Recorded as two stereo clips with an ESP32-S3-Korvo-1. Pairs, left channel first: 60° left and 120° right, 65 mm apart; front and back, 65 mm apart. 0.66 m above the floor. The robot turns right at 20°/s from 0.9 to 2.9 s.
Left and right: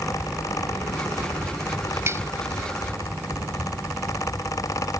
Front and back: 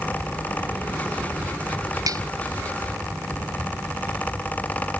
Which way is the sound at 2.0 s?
165° right.